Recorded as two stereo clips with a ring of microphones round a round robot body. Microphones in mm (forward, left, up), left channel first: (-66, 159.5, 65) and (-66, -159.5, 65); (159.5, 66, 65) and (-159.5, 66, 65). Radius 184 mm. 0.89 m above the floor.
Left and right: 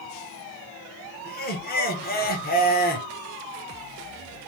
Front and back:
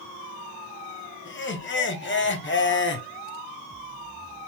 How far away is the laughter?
About 1.0 m.